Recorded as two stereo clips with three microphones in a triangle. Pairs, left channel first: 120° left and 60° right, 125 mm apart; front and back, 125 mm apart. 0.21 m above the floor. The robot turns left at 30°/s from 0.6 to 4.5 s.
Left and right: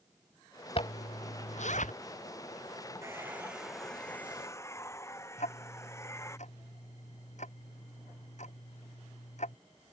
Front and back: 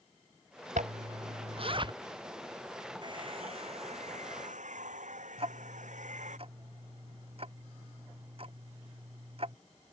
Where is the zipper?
165° left; by 1.9 s 130° left.